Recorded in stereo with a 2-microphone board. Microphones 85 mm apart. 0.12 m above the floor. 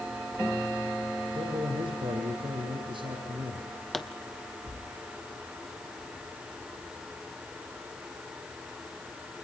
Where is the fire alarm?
No fire alarm in this recording.